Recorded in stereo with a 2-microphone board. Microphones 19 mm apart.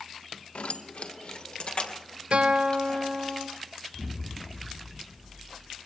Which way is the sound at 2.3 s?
70° right (ahead or behind).